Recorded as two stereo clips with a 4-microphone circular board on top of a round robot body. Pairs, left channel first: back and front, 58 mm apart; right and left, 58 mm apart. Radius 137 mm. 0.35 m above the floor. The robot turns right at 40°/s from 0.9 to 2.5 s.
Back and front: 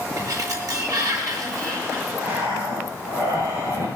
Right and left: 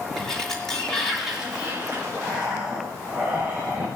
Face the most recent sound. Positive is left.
turn(degrees=20)